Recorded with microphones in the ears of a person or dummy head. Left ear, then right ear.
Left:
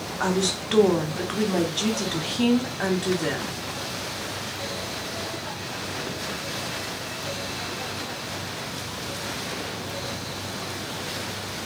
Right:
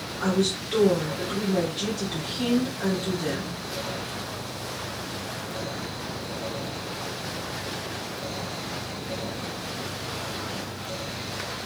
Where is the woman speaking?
40° left (ahead or behind), 0.6 m.